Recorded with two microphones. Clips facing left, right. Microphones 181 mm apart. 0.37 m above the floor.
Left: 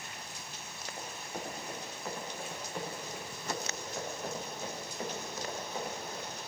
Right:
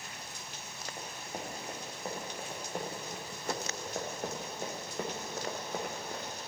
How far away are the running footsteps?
About 5.5 m.